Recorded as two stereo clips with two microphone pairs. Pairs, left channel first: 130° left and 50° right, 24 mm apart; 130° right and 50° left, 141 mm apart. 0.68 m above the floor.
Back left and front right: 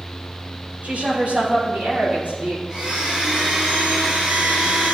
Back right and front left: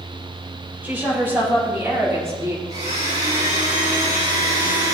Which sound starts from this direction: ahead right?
A woman speaking, at 0.8 s.